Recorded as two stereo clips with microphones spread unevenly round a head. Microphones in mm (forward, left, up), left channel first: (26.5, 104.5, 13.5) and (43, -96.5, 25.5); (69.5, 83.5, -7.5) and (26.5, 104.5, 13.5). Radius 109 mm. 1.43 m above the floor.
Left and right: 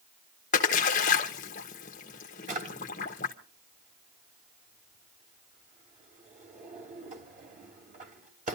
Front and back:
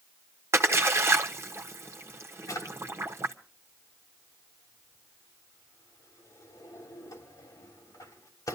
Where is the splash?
155° left, 1.1 m.